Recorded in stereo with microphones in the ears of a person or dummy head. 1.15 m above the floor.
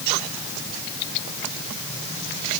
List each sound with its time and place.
Only background noise.